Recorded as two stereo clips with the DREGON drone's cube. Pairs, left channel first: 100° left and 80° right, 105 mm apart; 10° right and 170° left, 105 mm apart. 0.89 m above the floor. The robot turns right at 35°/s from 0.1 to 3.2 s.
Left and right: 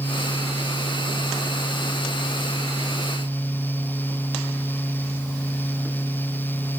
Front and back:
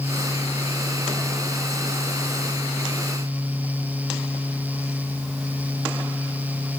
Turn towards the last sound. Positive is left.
No sound to turn to.